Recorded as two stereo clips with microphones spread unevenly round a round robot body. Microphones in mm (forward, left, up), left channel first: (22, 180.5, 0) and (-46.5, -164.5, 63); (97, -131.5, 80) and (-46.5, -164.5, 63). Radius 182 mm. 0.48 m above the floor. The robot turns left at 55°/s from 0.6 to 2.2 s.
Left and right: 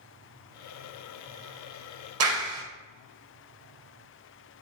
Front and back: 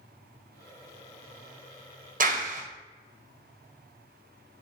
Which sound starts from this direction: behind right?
A clap, at 2.2 s.